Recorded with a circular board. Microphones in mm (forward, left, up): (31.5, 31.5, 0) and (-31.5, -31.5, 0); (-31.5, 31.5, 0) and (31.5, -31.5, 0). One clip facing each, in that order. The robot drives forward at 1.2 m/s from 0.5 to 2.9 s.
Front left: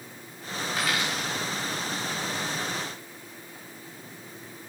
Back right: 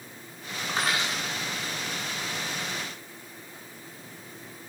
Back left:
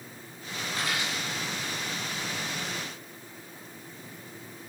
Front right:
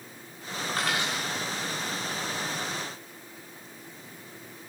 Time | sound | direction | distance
0.7 | a dropped coin | 70° right | 5 m